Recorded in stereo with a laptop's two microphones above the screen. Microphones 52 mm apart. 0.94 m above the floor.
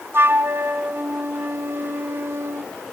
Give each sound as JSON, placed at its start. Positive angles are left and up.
{"t": 0.1, "sound": "a flute", "side_deg": -50, "distance_m": 1.3}